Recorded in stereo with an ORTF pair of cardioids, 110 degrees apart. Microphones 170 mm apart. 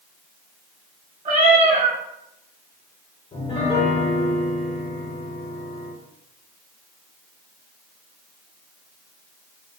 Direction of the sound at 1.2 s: 45° right.